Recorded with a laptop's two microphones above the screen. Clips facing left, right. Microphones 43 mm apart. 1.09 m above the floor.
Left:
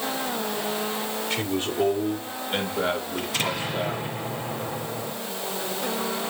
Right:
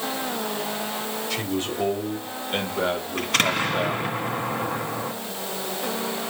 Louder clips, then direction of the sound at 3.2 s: Right 5 dB; 60° right (ahead or behind).